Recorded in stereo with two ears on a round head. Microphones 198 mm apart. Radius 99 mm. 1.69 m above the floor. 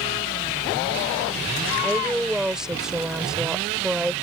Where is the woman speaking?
5° right (ahead or behind).